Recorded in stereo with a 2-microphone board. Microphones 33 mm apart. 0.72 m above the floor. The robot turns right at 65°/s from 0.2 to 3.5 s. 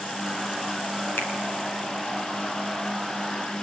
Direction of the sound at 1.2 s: 85° left.